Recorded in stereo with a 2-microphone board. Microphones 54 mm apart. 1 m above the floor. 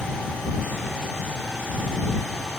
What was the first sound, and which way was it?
Only background noise.